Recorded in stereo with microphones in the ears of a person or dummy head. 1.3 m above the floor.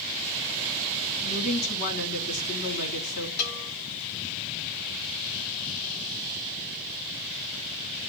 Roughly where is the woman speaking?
Left.